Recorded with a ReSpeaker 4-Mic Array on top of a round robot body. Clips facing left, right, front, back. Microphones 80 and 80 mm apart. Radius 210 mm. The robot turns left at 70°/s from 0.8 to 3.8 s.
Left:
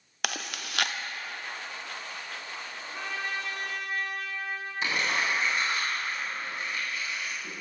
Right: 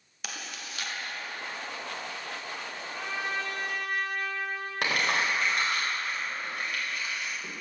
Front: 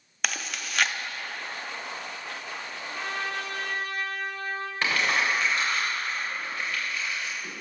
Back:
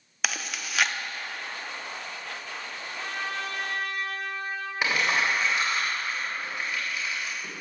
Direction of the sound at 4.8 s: 105° right.